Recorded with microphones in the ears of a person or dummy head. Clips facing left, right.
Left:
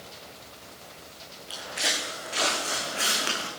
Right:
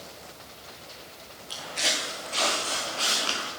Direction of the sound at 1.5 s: 5° left (ahead or behind).